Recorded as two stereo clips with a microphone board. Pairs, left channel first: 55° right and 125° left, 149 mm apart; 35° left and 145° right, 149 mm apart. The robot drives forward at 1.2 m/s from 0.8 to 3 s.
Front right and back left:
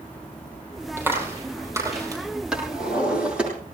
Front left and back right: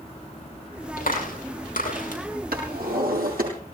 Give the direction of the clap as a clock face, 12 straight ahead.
10 o'clock.